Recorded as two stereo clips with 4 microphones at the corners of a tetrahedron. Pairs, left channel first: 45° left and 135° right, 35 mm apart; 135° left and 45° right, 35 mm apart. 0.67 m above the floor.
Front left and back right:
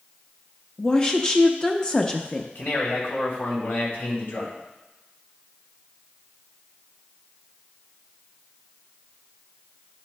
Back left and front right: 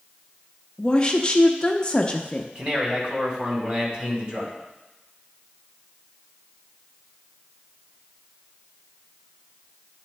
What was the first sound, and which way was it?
A woman speaking, 90° left.